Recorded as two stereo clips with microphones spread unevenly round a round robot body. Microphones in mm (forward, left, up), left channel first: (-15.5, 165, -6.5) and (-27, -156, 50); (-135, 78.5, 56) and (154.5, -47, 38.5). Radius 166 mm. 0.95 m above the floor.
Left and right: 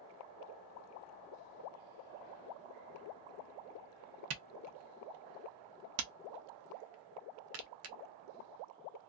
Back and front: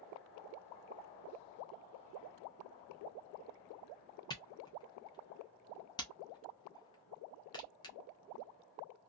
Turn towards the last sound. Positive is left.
turn(degrees=-130)